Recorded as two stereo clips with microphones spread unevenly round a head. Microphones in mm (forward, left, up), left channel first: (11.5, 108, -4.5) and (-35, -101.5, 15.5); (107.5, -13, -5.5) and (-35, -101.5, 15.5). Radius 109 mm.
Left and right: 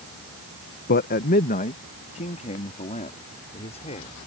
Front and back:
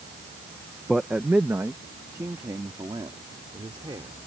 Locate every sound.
0.9 s a man speaking: 125° left; by 4.2 s 140° left